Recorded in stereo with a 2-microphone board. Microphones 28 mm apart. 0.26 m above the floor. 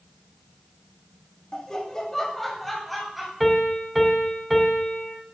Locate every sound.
1.5 s laughter: 25° left (ahead or behind), 1.0 m; by 3.3 s 5° right (ahead or behind), 1.3 m
3.4 s a piano: 5° right (ahead or behind), 1.4 m